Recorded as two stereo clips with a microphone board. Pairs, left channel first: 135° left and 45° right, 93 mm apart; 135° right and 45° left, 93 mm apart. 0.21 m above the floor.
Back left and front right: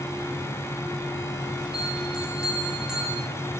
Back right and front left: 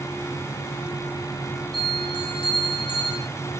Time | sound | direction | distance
1.7 | a bell | 130° right | 8.5 m